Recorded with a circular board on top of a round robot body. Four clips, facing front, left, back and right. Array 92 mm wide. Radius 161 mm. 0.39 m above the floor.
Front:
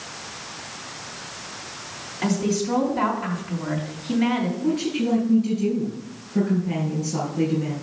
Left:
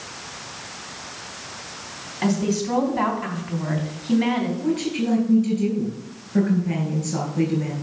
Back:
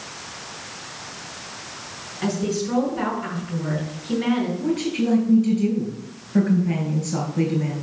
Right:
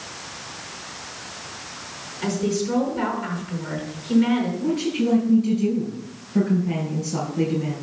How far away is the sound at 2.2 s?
About 3.5 m.